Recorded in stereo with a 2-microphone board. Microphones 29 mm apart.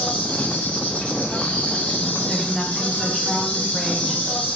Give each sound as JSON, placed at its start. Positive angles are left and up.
{"t": 0.0, "sound": "an insect", "side_deg": 55, "distance_m": 0.9}
{"t": 2.3, "sound": "a woman speaking", "side_deg": 5, "distance_m": 0.9}